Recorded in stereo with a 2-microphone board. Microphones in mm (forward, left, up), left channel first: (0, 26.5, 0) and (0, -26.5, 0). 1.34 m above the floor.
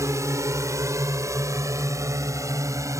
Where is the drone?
80° right.